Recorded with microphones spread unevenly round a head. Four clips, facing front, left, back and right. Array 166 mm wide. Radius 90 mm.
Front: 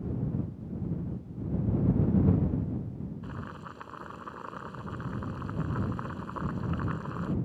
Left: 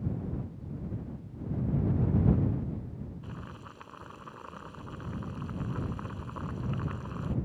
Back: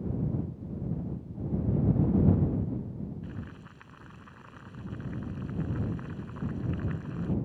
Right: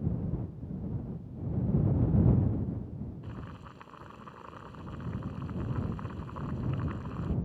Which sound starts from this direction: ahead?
Boiling, at 3.2 s.